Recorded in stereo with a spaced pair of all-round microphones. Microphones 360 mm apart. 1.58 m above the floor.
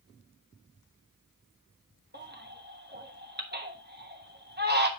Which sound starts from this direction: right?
A baby crying, at 2.1 s.